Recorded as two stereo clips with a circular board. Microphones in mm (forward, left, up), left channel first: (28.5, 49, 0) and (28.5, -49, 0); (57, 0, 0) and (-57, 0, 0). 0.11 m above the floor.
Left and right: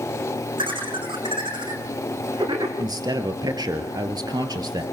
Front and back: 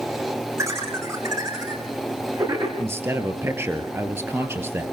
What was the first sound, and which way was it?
Laughter, 120° right.